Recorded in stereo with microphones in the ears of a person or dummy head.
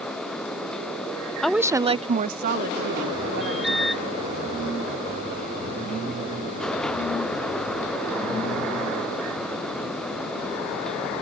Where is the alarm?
Centre (ahead or behind).